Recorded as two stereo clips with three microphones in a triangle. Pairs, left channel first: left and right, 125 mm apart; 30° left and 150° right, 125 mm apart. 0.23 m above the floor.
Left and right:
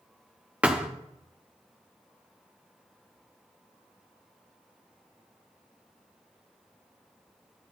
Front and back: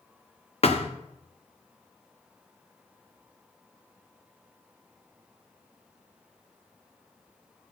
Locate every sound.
0.6 s a thud: 10° right, 1.7 m